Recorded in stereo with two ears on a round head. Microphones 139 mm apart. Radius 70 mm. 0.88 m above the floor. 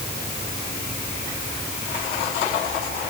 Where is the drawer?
No drawer in this recording.